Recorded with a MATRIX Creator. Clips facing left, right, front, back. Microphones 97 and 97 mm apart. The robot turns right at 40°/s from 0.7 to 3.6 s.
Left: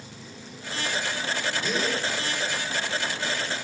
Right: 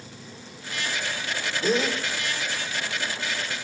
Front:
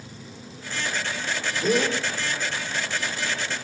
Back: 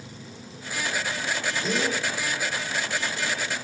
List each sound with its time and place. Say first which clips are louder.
1.6 s a gasp: right 6 dB, front 6 dB; 40° right, 8.5 m; by 2.0 s 25° right, 8.5 m